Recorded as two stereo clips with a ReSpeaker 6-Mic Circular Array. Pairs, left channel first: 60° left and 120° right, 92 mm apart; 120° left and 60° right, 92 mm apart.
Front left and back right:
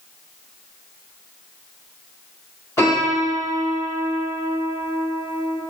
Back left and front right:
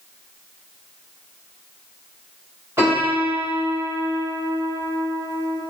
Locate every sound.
2.8 s a piano: 5° left, 1.6 m